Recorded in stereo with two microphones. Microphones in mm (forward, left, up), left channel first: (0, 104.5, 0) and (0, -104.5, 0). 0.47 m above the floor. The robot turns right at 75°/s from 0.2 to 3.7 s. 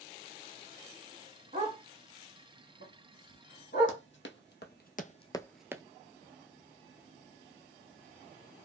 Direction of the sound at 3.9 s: 65° left (ahead or behind).